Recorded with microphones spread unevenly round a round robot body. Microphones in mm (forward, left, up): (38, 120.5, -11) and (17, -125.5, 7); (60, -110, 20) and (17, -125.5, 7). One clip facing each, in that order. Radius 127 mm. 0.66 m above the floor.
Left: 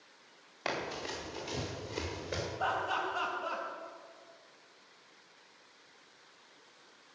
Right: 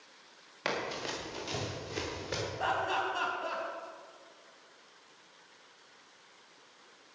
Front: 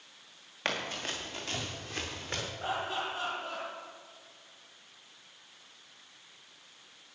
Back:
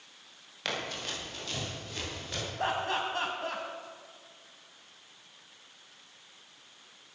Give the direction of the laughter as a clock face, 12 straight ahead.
5 o'clock.